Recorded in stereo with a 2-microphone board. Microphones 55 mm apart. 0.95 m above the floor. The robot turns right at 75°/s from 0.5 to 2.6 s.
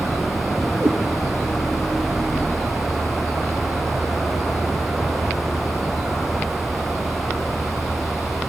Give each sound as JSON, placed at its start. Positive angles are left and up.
{"t": 0.8, "sound": "a cat meowing", "side_deg": -80, "distance_m": 6.0}